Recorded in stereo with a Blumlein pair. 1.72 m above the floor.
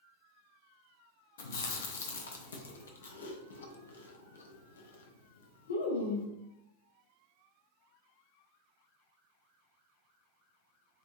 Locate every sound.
1.4 s chewing: 65° left, 0.5 m